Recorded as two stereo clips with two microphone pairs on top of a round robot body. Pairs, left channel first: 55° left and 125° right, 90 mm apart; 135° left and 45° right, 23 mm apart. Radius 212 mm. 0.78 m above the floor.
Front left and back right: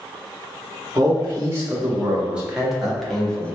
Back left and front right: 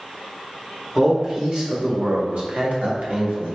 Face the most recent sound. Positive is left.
turn(degrees=-20)